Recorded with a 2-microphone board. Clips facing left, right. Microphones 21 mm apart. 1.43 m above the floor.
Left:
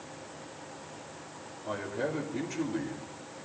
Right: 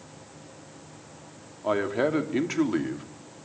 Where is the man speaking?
60° right (ahead or behind), 3 m.